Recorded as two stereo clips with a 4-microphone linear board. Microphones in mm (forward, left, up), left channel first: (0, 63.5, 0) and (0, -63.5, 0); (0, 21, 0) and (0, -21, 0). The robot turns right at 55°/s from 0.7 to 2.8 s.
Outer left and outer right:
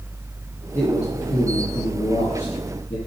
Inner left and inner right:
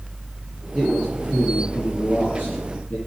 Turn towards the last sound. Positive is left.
turn(degrees=130)